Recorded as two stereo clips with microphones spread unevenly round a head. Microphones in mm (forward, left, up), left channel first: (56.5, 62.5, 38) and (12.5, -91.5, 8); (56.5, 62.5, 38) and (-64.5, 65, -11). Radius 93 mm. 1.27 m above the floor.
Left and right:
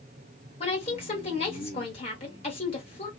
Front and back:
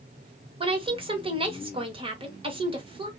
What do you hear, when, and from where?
0.6 s a woman speaking: 135° left, 1.6 m